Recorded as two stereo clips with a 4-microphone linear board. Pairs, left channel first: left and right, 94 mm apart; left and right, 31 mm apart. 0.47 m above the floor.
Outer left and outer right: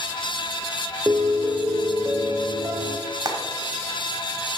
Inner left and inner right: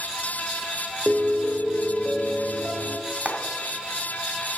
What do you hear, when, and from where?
1.1 s a piano: 25° right (ahead or behind), 0.9 m
3.1 s frying: 40° right (ahead or behind), 2 m